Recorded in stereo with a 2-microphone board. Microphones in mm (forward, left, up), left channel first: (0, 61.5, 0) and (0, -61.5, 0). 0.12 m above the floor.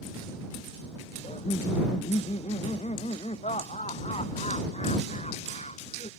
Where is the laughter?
60° left (ahead or behind); by 6.1 s 65° left (ahead or behind).